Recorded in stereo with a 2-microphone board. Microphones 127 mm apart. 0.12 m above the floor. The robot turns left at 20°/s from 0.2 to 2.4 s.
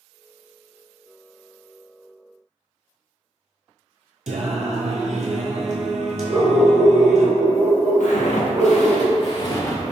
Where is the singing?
70° right (ahead or behind), 0.6 m.